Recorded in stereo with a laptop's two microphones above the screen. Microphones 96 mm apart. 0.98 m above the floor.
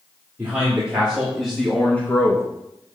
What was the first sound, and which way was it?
A man speaking, 15° right (ahead or behind).